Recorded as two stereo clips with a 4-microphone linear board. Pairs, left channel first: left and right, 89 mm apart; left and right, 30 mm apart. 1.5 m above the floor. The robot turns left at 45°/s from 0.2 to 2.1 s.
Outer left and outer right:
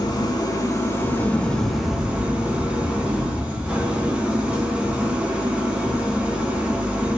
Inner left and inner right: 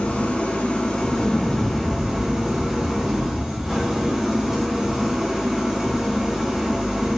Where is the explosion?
Straight behind, 2 m; by 5.6 s 135° left, 2 m.